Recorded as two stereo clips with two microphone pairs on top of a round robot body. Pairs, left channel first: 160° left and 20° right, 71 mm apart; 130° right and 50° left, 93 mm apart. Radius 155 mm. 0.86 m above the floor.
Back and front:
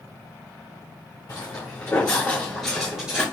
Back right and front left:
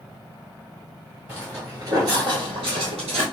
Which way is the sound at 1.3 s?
135° left.